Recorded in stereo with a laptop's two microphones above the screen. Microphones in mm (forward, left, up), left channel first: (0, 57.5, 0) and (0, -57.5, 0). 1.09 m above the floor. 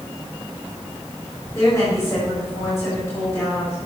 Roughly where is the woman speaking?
Left.